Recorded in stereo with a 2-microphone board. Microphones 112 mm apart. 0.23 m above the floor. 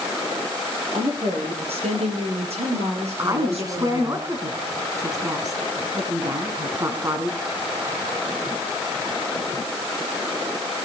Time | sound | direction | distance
0.9 | a woman speaking | 65° right (ahead or behind) | 5.5 m
3.2 | a woman speaking | 30° right (ahead or behind) | 2.5 m